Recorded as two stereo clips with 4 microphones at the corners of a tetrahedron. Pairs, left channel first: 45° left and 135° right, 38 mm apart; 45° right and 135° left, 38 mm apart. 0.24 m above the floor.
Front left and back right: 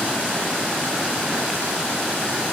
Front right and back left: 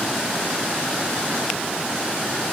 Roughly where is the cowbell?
No cowbell in this recording.